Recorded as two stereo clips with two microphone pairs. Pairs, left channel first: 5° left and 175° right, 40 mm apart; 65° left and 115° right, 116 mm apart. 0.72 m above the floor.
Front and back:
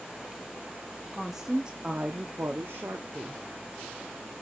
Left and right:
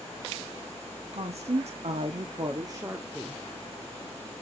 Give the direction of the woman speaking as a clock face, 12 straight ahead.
3 o'clock.